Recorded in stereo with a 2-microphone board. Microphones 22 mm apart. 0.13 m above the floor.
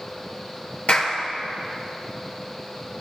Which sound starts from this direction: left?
A clap, at 0.9 s.